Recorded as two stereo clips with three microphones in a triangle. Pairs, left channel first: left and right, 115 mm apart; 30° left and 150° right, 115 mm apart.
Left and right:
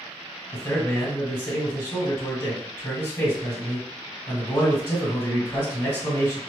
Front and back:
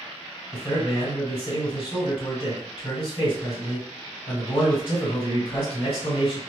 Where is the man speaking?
35° left, 2.0 m.